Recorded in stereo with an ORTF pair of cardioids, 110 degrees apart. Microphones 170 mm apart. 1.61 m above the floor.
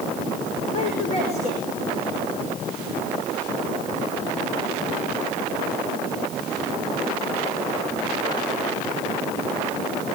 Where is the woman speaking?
40° left, 5.5 m.